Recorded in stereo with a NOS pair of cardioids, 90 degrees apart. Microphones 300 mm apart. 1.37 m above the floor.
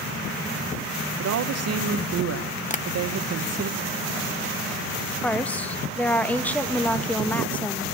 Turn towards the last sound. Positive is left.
turn(degrees=5)